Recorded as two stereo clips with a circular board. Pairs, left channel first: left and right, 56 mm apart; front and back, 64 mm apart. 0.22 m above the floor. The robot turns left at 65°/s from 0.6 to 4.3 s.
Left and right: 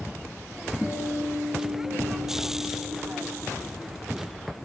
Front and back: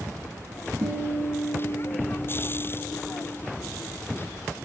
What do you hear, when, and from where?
0.8 s a guitar: straight behind, 2.0 m; by 3.3 s 15° left, 2.0 m